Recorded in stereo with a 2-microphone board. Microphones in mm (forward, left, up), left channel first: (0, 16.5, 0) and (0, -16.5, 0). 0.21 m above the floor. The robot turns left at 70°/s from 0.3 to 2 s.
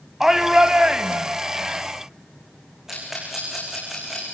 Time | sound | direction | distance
0.2 | a shout | 20° right | 1.2 m
2.9 | a rattle | 10° right (ahead or behind) | 7.5 m